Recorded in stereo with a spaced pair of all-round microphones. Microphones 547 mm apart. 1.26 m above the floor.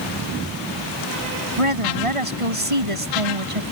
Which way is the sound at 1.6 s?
70° right (ahead or behind).